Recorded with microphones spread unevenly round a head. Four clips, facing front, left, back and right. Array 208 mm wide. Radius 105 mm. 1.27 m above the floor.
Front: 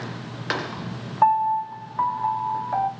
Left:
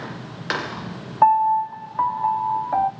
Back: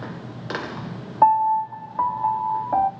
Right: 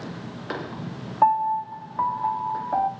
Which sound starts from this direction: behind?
A piano, at 1.2 s.